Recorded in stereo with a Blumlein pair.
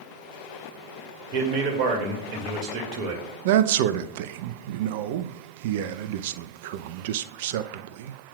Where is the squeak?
I don't hear a squeak.